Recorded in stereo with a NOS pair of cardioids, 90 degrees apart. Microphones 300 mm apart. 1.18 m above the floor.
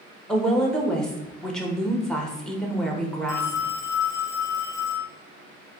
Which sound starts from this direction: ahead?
A woman speaking, at 0.3 s.